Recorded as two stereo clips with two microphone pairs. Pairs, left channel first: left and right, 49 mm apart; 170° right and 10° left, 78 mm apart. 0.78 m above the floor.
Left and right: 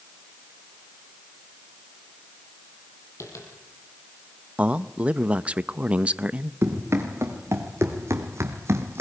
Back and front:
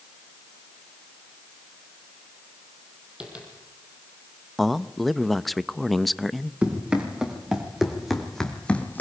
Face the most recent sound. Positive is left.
turn(degrees=-105)